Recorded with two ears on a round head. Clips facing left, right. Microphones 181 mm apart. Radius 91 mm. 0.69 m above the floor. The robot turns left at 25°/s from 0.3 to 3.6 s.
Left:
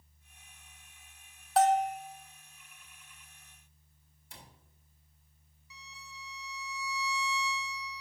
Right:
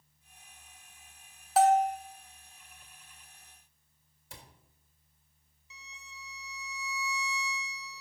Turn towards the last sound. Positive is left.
turn(degrees=-20)  # may be behind; listen again after turning